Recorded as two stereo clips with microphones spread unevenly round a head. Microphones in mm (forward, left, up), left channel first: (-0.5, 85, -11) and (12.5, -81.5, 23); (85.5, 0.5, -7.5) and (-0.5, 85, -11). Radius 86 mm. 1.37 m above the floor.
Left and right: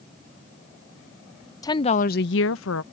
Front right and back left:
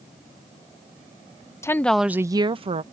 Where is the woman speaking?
25° left; by 2.8 s 105° left.